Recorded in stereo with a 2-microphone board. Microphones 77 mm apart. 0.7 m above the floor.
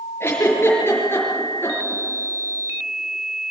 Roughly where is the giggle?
Left.